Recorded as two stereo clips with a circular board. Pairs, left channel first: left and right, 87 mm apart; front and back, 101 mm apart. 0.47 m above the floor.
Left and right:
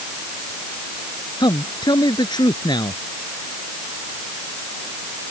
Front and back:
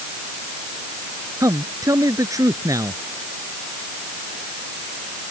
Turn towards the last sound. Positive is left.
turn(degrees=125)